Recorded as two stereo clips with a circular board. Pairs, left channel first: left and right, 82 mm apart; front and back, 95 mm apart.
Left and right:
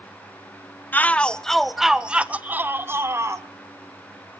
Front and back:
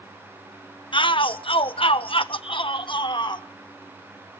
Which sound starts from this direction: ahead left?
A shout, at 0.9 s.